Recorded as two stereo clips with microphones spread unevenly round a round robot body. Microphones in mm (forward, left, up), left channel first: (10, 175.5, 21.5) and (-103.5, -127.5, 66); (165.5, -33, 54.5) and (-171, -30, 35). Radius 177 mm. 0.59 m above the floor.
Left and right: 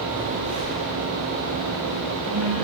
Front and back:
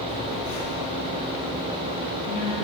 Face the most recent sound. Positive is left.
turn(degrees=-40)